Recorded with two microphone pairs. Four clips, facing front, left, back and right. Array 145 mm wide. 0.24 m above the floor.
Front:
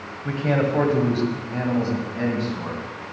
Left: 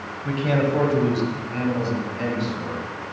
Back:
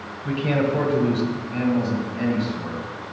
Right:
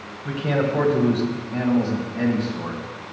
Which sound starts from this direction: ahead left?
A man speaking, at 0.2 s.